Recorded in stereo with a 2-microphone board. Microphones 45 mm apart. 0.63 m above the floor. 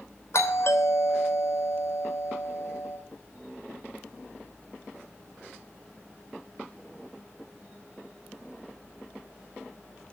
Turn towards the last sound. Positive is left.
turn(degrees=65)  # may be behind; listen again after turning